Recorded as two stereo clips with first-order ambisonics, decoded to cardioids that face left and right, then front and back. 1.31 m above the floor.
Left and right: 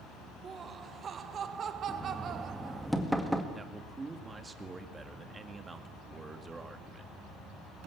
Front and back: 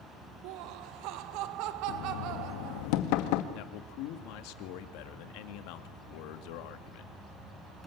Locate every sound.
0.4 s laughter: 160° right, 1.1 m; by 2.9 s 145° right, 2.5 m
1.9 s knocking: straight ahead, 1.8 m
3.5 s a man speaking: 15° right, 2.0 m